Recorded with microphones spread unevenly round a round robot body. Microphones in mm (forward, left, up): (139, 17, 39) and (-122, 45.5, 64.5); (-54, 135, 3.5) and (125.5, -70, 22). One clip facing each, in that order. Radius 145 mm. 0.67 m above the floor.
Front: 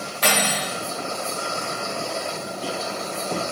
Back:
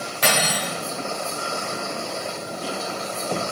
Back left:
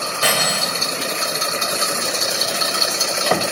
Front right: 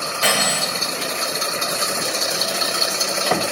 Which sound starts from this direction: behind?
Cutlery clinking, at 0.2 s.